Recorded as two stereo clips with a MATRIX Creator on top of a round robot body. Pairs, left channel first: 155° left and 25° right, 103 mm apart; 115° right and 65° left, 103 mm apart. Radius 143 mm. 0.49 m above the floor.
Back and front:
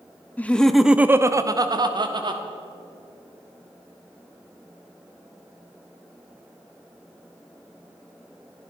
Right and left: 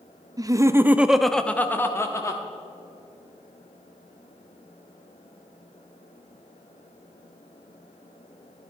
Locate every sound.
0.4 s laughter: 90° left, 0.8 m; by 2.4 s 55° right, 1.2 m